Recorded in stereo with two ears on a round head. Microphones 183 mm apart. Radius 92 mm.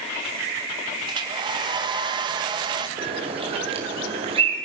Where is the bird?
30° right (ahead or behind), 5.5 m.